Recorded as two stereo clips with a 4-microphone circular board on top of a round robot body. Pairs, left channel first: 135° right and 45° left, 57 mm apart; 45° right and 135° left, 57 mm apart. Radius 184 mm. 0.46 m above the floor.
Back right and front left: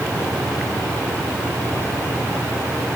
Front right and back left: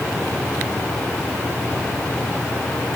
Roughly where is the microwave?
I don't hear a microwave.